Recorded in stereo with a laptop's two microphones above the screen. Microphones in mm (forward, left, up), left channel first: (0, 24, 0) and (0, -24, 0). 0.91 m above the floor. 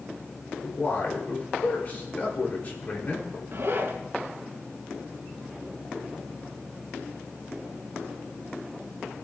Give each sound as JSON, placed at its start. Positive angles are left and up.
{"t": 0.6, "sound": "a man speaking", "side_deg": 40, "distance_m": 2.5}
{"t": 3.5, "sound": "a zipper", "side_deg": -65, "distance_m": 2.5}